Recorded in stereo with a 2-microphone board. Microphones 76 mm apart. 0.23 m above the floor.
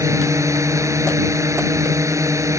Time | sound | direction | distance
0.0 | a drone | 40° right (ahead or behind) | ?